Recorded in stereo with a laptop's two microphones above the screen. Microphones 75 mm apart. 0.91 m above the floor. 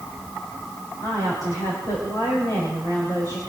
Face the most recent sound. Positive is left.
turn(degrees=55)  # may be behind; listen again after turning